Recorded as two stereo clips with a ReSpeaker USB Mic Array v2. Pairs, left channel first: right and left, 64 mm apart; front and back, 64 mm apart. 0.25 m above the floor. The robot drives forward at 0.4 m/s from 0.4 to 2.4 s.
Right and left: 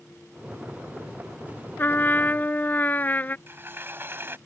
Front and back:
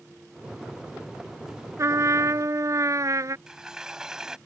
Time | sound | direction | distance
1.8 | a trumpet | 145° right | ?
3.5 | a sliding door | 105° left | ?